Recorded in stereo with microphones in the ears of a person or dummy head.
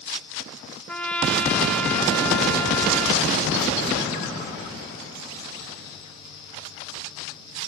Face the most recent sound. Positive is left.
turn(degrees=10)  # may be behind; listen again after turning